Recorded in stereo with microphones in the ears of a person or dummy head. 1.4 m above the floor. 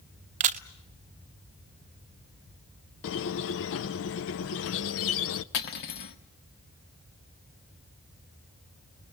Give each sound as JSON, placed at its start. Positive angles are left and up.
{"t": 0.4, "sound": "a camera shutter", "side_deg": -40, "distance_m": 0.7}
{"t": 3.0, "sound": "a squeak", "side_deg": 70, "distance_m": 0.6}
{"t": 5.5, "sound": "cutlery clinking", "side_deg": 65, "distance_m": 1.5}